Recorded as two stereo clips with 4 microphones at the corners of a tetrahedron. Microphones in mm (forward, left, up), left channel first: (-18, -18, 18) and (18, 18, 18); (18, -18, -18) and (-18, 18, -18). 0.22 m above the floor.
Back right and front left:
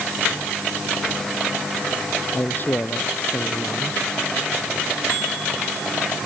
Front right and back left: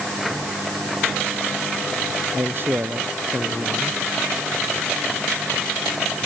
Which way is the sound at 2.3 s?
Straight behind.